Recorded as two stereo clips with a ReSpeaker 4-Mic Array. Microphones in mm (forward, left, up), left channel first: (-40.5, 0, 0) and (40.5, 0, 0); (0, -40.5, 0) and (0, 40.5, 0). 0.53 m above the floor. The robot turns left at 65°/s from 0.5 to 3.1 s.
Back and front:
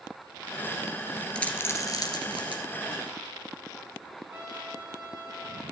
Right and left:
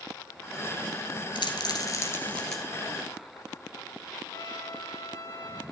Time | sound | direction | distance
1.4 | a dropped coin | 100° right | 1.9 m
4.3 | a trumpet | 60° right | 7 m